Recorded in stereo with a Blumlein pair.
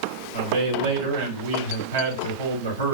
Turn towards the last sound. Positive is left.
turn(degrees=-60)